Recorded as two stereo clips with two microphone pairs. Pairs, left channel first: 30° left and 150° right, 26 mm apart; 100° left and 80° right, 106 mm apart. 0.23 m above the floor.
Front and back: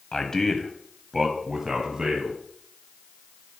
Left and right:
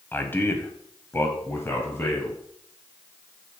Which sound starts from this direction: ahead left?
A man speaking, at 0.1 s.